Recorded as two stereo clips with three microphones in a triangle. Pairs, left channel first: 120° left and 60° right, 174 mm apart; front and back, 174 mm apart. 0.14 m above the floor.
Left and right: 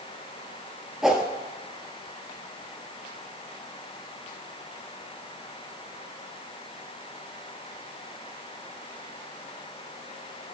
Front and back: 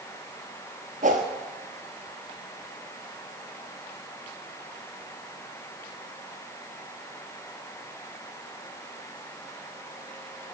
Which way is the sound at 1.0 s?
150° right.